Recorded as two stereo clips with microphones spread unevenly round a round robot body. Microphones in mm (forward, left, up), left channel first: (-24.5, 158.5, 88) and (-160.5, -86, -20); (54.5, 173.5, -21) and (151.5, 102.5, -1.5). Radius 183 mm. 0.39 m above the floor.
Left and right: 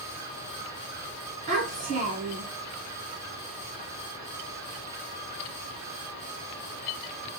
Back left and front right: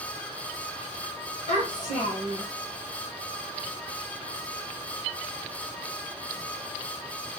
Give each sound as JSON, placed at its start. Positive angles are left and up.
{"t": 1.5, "sound": "a child speaking", "azimuth_deg": -175, "distance_m": 2.5}